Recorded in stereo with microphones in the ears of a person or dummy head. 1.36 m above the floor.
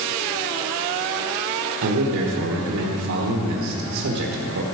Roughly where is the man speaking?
Right.